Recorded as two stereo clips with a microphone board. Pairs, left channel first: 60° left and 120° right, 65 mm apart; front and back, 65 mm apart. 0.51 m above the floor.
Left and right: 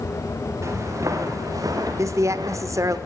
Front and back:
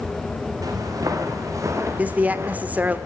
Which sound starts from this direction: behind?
Footsteps, at 0.6 s.